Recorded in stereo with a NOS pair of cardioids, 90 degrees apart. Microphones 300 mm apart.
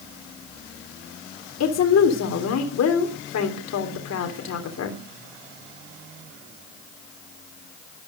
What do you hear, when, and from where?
1.6 s a woman speaking: 60° left, 3.5 m